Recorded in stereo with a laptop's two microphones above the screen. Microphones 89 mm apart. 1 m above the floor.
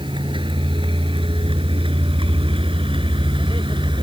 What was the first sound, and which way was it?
A vehicle, 70° right (ahead or behind).